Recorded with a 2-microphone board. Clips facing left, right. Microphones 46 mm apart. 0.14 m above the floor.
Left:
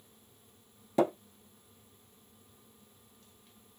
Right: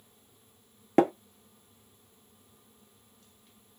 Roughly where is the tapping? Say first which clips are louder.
Right 5 dB; right.